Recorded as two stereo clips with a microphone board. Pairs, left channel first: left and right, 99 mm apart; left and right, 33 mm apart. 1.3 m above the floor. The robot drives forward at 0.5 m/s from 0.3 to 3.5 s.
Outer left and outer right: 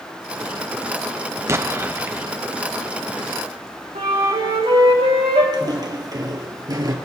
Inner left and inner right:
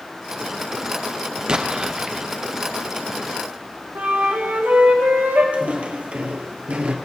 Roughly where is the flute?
Right.